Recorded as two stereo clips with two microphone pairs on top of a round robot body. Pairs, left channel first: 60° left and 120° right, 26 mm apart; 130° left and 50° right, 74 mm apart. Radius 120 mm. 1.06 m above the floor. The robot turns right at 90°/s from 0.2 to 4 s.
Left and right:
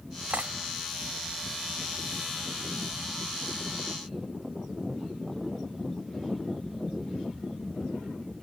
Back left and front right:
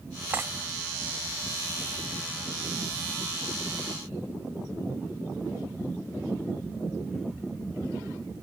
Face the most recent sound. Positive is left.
turn(degrees=-150)